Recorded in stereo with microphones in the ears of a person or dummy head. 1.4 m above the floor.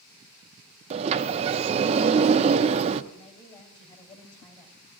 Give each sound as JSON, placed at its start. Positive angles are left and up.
{"t": 0.9, "sound": "a sliding door", "side_deg": -30, "distance_m": 0.5}
{"t": 3.1, "sound": "a woman speaking", "side_deg": 35, "distance_m": 3.5}